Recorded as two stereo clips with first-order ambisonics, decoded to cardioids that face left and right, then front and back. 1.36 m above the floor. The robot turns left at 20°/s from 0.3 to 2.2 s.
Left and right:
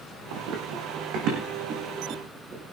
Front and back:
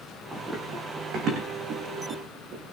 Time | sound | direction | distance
0.3 | running footsteps | 95° right | 4 m